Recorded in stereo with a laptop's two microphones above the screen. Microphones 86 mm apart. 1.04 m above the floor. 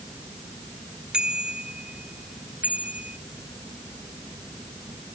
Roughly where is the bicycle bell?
Centre.